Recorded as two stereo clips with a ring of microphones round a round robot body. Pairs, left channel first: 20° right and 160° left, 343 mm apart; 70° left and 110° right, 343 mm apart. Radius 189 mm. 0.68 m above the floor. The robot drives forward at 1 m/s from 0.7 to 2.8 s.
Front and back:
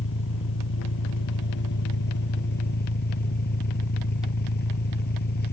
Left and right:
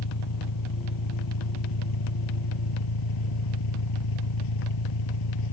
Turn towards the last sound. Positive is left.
turn(degrees=40)